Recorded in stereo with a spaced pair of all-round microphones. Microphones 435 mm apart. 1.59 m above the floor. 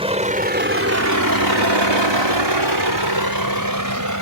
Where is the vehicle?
15° right (ahead or behind); by 4.2 s 40° right (ahead or behind).